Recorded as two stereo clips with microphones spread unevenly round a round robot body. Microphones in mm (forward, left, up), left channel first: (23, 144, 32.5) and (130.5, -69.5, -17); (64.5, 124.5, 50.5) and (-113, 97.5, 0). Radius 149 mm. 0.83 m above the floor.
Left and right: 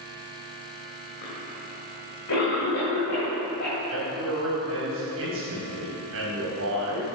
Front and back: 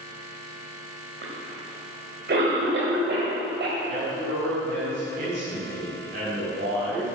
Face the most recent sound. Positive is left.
turn(degrees=-110)